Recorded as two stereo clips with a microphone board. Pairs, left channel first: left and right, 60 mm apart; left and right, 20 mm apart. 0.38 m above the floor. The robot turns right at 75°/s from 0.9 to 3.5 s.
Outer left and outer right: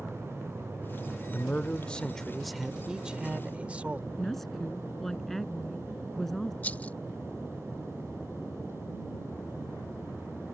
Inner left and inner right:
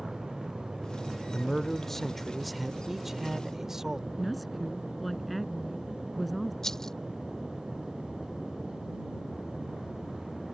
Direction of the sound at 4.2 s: 5° left (ahead or behind).